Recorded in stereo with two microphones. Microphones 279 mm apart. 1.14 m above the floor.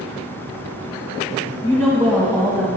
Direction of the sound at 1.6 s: 5° right (ahead or behind).